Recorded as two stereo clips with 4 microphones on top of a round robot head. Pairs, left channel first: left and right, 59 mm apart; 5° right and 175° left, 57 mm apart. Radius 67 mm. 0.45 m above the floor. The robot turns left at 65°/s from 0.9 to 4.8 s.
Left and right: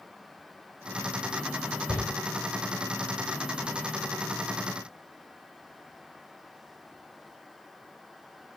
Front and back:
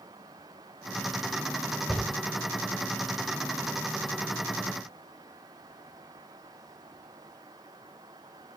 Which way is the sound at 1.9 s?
80° left.